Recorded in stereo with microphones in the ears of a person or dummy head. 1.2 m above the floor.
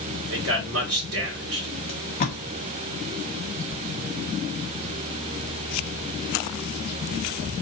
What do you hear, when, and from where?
0.3 s a man speaking: 70° right (ahead or behind), 1.8 m
1.9 s tape being pulled: 40° left (ahead or behind), 1.0 m